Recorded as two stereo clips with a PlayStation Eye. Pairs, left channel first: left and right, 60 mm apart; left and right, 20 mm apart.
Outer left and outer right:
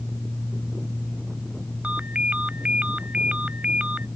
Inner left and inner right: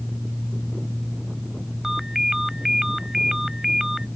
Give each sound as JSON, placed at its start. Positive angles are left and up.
{"t": 1.8, "sound": "a ringtone", "side_deg": -20}